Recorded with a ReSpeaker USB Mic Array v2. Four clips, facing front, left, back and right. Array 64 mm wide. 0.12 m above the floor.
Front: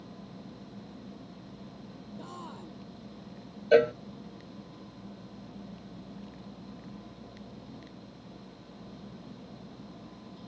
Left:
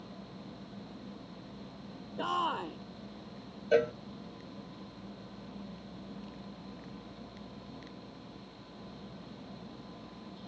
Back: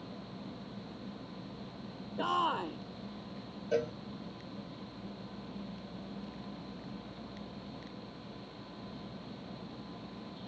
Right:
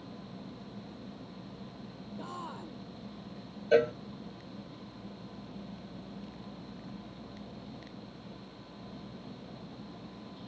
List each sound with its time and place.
2.2 s a shout: 140° left
3.7 s a cowbell: 10° right